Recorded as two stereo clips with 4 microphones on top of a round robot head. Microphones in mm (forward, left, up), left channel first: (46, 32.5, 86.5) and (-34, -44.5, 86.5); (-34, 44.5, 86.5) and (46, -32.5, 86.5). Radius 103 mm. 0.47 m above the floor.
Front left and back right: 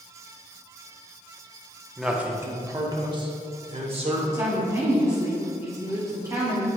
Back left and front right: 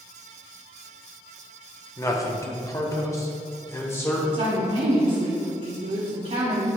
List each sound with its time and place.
2.0 s a man speaking: 135° left, 1.2 m; by 4.2 s 160° right, 2.5 m
4.3 s a woman speaking: 75° right, 1.9 m